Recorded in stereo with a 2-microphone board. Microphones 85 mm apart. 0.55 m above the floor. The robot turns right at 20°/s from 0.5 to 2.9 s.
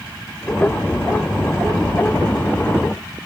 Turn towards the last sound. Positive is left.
No sound to turn to.